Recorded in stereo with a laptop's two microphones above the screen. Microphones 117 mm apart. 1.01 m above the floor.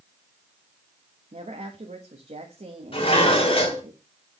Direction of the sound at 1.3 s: 75° right (ahead or behind).